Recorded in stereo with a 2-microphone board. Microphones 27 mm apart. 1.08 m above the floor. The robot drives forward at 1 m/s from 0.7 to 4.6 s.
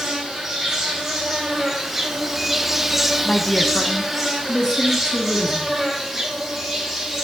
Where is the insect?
Centre (ahead or behind), 2.5 m; by 7.2 s 5° right (ahead or behind), 1.7 m.